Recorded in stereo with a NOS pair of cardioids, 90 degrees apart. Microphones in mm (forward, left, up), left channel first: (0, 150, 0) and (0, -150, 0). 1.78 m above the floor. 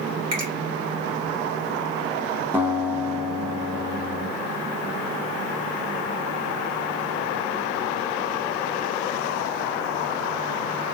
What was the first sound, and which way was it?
A finger snap, 60° right.